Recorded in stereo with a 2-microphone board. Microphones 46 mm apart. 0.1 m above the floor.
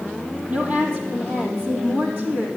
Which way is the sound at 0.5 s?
30° right (ahead or behind).